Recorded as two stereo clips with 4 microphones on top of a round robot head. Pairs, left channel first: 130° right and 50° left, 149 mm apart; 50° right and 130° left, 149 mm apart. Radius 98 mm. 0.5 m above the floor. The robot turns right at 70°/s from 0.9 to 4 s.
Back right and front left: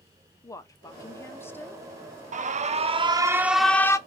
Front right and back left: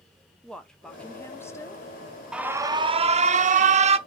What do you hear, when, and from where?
0.4 s a woman speaking: 125° right, 0.9 m; by 1.9 s 55° right, 0.9 m
2.3 s an alarm: 50° left, 0.6 m; by 4.0 s 165° left, 0.6 m